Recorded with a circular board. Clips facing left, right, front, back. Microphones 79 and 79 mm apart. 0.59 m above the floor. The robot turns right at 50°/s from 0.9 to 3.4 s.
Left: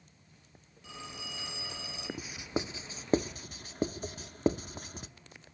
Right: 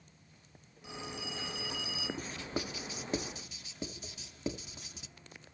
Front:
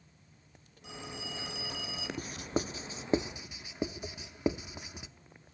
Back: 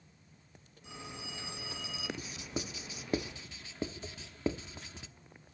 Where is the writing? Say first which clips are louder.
Left 7 dB, front 6 dB; 10° left, 0.5 m; by 5.1 s 70° left, 0.5 m.